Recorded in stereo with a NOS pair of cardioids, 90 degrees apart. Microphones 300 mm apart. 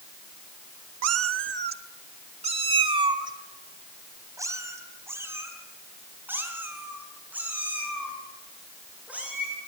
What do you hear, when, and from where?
1.0 s a cat meowing: 60° right, 0.8 m; by 9.5 s 5° right, 9 m